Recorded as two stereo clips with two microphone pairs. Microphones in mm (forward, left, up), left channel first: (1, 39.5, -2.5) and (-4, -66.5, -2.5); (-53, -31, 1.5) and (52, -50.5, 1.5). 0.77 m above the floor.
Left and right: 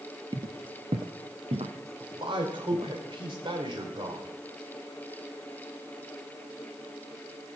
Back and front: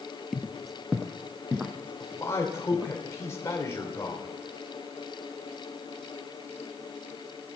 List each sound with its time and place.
0.3 s footsteps: 105° right, 1.0 m; by 2.9 s 85° right, 3.5 m
2.0 s a man speaking: 125° right, 3 m